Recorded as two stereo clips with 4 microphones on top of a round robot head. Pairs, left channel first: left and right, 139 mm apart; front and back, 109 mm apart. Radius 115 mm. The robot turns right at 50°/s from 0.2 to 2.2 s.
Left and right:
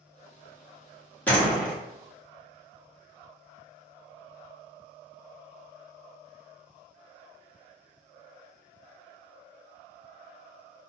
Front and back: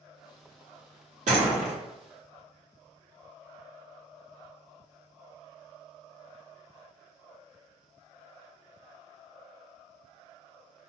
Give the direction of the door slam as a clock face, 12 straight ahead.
6 o'clock.